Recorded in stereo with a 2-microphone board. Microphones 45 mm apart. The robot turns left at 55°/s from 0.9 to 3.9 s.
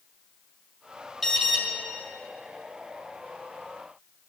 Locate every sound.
1.2 s an alarm: 10° left (ahead or behind), 2 m; by 1.6 s 10° right (ahead or behind), 2 m